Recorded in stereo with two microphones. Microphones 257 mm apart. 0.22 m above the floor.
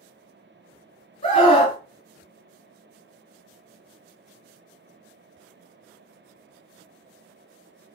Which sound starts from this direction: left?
A scream, at 1.2 s.